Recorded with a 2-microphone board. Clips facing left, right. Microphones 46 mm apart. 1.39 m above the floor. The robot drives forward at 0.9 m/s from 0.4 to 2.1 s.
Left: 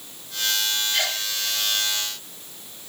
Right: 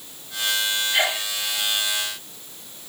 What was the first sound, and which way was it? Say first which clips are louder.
A sneeze: right 4 dB; 25° right (ahead or behind).